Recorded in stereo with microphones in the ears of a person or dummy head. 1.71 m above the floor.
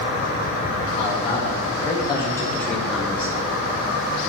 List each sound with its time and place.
1.0 s a man speaking: 30° left (ahead or behind), 3.5 m; by 3.5 s 30° right (ahead or behind), 1.3 m